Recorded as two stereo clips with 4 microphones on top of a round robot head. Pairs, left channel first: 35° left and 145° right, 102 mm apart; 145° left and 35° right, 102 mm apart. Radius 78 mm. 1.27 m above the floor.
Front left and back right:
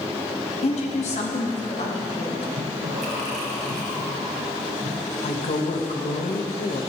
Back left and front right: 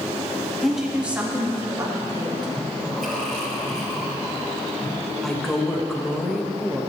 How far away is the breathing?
About 3.5 m.